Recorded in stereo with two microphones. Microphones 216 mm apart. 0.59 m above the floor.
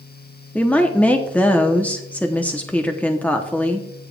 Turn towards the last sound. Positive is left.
turn(degrees=5)  # may be behind; listen again after turning